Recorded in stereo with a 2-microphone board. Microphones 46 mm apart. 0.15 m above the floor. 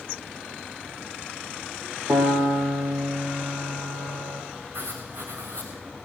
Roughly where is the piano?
Right.